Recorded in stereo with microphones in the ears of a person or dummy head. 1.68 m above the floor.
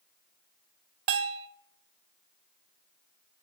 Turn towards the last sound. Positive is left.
turn(degrees=-60)  # may be behind; listen again after turning